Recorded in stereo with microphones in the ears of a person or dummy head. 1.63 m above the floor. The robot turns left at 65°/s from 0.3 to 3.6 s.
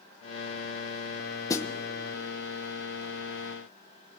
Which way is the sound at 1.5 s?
20° left (ahead or behind).